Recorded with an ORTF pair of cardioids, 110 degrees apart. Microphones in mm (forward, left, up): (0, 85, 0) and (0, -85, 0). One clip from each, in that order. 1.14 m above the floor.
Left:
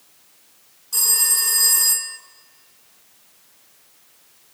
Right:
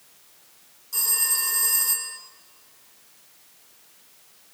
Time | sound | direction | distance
0.9 | a phone ringing | 35° left | 2 m